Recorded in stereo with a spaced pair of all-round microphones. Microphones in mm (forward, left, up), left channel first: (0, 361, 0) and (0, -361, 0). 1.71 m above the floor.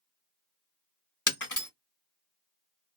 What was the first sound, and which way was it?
Breaking glass, 25° left (ahead or behind).